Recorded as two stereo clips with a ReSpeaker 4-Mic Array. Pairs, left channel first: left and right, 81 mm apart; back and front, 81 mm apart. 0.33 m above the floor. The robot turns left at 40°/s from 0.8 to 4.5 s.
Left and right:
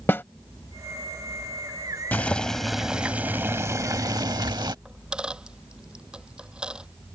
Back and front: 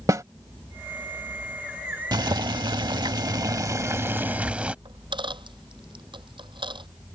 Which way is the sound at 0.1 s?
35° left.